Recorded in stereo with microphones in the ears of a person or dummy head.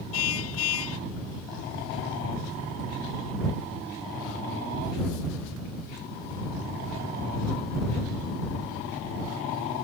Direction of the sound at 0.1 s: 80° left.